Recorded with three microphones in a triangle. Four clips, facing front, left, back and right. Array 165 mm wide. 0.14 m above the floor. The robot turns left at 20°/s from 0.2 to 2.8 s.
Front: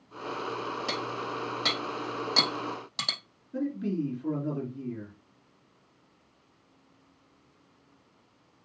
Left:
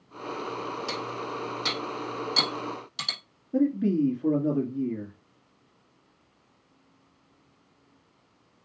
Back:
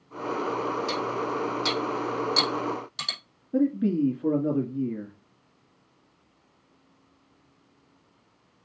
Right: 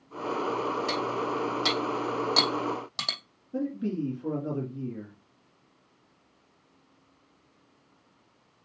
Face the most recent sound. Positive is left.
turn(degrees=165)